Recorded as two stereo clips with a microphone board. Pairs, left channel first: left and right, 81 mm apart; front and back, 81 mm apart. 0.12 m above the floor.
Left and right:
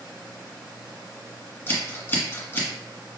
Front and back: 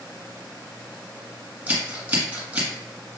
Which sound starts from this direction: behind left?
Scissors, at 1.7 s.